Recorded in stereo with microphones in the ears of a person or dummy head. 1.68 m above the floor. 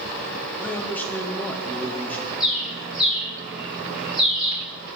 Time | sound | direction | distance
0.6 | a man speaking | 5° left (ahead or behind) | 0.9 m
2.4 | a bird | 5° right (ahead or behind) | 5 m